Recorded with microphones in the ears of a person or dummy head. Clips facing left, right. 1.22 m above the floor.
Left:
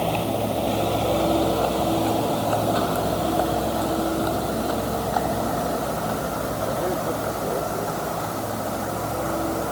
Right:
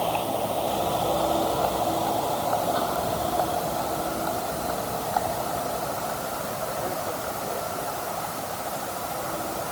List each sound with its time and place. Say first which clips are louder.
0.0 s a vehicle: left 3 dB; 25° left (ahead or behind); by 9.7 s 45° left (ahead or behind)